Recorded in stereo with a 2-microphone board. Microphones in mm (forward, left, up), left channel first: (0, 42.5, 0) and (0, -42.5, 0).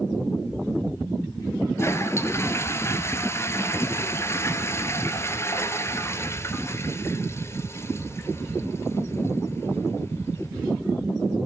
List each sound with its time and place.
1.8 s a toilet flushing: 30° left (ahead or behind), 1.3 m